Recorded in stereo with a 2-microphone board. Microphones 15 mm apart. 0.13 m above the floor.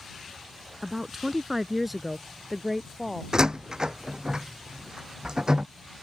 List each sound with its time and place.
0.8 s a woman speaking: 20° right (ahead or behind); by 3.2 s 5° left (ahead or behind)
3.3 s a door slam: 50° right (ahead or behind)